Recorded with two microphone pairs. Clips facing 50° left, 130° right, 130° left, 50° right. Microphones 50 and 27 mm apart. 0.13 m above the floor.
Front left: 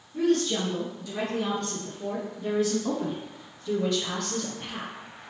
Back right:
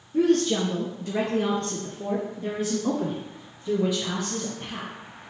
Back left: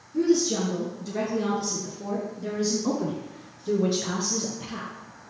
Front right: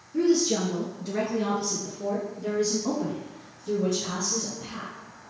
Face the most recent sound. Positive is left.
turn(degrees=140)